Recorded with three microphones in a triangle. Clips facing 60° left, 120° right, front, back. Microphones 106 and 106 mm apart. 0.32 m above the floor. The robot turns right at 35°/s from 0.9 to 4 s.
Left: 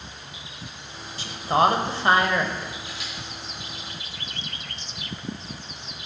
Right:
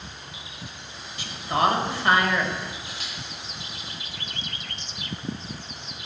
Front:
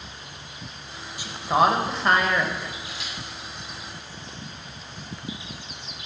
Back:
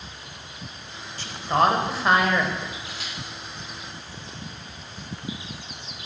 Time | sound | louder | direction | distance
1.2 | a woman speaking | left 3 dB, front 1 dB | 65° left | 1.0 m
2.9 | a camera shutter | left 1 dB, even | 155° right | 3.5 m